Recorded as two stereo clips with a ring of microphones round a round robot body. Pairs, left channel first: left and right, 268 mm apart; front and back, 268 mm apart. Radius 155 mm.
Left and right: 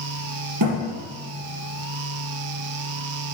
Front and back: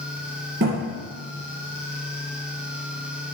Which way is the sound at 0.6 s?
125° right.